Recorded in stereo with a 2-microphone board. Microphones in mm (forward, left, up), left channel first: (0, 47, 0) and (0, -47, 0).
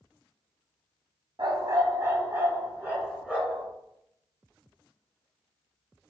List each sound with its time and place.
1.4 s a dog barking: 50° right (ahead or behind), 1.3 m; by 3.7 s 10° right (ahead or behind), 3 m